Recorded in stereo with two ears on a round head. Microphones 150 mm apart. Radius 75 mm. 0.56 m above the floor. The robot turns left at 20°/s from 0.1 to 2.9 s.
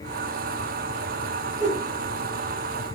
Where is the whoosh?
20° right (ahead or behind), 1.5 m; by 1.8 s 25° right (ahead or behind), 1.5 m.